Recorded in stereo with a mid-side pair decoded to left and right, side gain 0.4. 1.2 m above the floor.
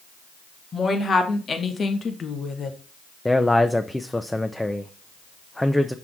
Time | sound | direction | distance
0.7 | a woman speaking | 40° left | 2.0 m
3.2 | a man speaking | 10° left | 0.7 m